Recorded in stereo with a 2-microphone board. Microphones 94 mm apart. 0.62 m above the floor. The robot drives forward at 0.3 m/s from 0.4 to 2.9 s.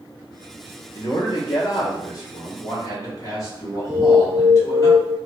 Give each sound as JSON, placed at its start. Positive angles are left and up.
{"t": 0.9, "sound": "a man speaking", "side_deg": 45, "distance_m": 1.0}
{"t": 3.9, "sound": "an alarm", "side_deg": -50, "distance_m": 0.5}